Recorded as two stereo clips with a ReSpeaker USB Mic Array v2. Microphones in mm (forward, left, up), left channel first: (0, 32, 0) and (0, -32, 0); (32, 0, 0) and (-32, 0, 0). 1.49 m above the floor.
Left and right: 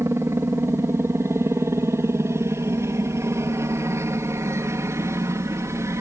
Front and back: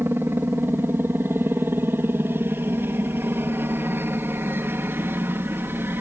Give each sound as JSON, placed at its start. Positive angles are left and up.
{"t": 0.0, "sound": "a helicopter", "azimuth_deg": -130}